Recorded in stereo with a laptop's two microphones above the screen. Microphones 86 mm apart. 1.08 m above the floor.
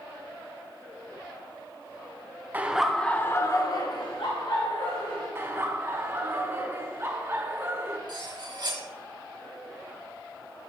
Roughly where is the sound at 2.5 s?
Centre.